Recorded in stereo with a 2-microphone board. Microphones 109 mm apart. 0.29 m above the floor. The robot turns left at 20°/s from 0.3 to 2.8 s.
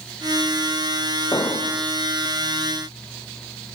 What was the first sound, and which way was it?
An explosion, 30° left (ahead or behind).